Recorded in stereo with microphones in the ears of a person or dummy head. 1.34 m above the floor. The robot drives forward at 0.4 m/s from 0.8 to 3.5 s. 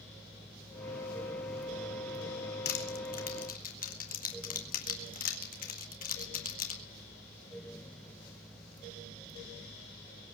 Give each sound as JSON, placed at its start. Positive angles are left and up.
{"t": 2.6, "sound": "crushing", "side_deg": 50, "distance_m": 1.8}